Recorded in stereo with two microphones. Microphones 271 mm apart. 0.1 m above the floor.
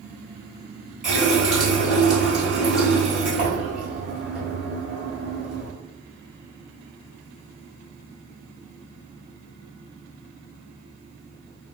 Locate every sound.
1.0 s a running tap: centre (ahead or behind), 1.5 m